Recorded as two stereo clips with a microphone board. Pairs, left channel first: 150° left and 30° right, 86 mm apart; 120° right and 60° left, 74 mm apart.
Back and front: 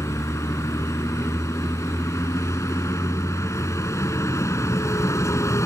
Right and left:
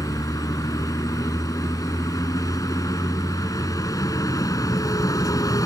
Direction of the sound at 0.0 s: 155° right.